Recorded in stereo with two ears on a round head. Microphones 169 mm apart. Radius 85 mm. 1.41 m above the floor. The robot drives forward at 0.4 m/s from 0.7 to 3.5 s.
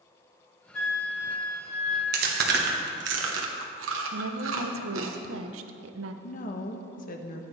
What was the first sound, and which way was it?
A flute, 85° left.